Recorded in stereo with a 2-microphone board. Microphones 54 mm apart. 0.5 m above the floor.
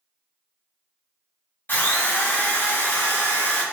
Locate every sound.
1.7 s a drill: 40° left (ahead or behind), 0.8 m